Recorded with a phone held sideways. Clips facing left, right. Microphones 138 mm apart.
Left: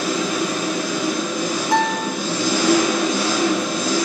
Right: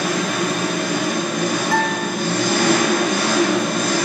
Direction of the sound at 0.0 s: 60° right (ahead or behind).